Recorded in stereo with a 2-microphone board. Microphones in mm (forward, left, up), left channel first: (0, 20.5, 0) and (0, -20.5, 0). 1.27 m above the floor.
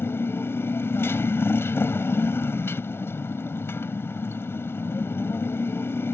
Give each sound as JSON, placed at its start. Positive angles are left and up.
{"t": 0.0, "sound": "a motorcycle", "side_deg": 70}